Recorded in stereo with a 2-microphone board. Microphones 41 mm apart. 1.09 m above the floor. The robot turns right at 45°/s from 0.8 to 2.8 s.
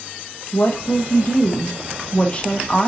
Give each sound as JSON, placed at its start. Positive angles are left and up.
{"t": 0.5, "sound": "a woman speaking", "azimuth_deg": 70, "distance_m": 0.9}